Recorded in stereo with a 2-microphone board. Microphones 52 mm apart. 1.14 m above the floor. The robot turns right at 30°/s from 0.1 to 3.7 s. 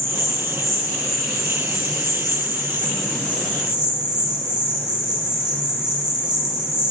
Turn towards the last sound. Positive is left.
turn(degrees=-15)